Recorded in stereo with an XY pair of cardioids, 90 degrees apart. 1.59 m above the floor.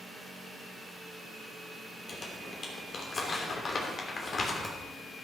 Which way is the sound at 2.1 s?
45° left.